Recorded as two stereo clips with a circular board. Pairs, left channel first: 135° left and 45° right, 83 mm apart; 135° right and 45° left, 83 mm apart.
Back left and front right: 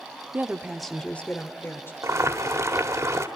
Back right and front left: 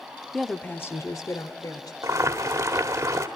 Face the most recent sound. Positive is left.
turn(degrees=0)